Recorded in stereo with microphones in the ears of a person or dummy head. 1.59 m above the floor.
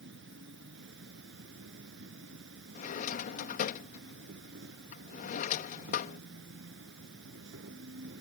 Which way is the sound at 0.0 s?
70° right (ahead or behind).